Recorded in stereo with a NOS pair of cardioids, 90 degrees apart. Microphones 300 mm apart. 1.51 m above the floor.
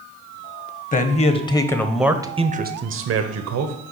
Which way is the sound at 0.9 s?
25° left.